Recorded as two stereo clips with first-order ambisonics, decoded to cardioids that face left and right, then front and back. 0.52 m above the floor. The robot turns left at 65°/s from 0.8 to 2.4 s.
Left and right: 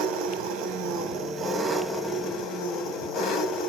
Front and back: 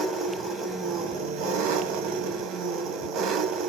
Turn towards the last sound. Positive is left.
turn(degrees=140)